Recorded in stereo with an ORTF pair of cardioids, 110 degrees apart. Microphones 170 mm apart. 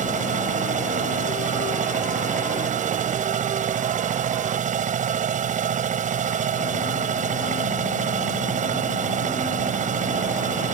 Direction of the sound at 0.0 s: 50° right.